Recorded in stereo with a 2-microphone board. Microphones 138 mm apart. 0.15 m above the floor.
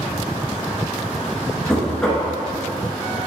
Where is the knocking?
5° left (ahead or behind), 1.3 m.